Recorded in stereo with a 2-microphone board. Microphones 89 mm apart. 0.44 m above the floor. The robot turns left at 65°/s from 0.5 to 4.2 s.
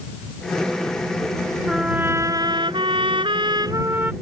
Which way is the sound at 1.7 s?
Straight ahead.